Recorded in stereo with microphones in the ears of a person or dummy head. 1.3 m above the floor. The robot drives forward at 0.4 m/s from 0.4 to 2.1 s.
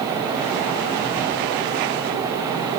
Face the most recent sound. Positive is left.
No sound to turn to.